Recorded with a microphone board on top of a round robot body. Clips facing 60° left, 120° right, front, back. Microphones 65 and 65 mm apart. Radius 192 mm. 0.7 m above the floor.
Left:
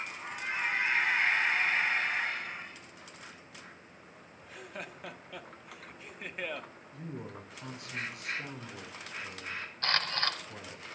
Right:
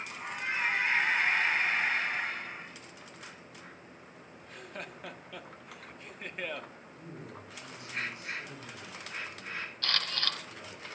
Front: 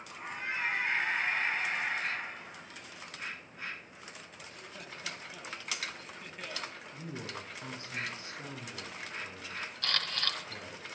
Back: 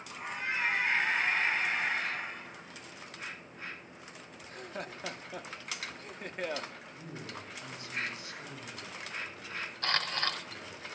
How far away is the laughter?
About 1.5 m.